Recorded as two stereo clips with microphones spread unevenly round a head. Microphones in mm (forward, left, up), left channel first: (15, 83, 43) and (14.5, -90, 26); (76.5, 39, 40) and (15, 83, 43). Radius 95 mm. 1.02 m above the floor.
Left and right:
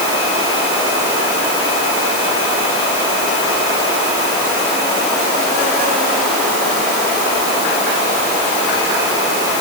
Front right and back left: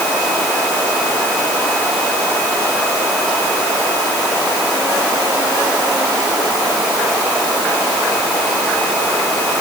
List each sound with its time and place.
Only background noise.